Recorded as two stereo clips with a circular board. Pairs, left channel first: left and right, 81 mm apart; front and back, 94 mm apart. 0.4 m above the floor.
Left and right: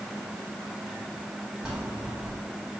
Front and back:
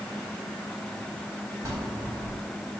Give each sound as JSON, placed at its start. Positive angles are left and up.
{"t": 1.6, "sound": "a bell", "azimuth_deg": -155, "distance_m": 1.3}